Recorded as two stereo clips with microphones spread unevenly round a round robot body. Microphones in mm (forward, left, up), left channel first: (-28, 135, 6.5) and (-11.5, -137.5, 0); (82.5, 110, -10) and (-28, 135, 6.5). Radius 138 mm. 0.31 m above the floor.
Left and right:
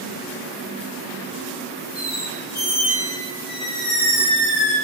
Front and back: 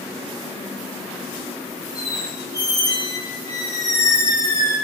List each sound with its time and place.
1.9 s a squeak: 50° left, 1.0 m